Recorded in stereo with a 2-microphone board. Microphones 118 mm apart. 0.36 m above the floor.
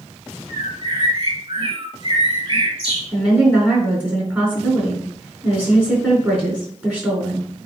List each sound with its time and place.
0.5 s a bird: 40° right (ahead or behind), 2.5 m
3.1 s a woman speaking: 10° right (ahead or behind), 4.5 m